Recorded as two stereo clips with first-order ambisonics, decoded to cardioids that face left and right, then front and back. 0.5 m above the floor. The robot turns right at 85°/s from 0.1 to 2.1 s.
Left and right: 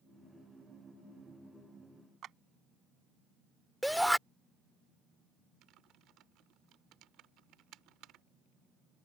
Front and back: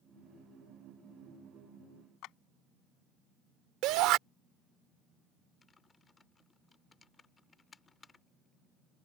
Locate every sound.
2.2 s a clap: 35° right
3.8 s a shout: straight behind
5.6 s typing on a keyboard: 70° right